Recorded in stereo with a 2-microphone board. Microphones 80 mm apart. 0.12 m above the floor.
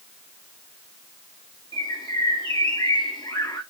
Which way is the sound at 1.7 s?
80° left.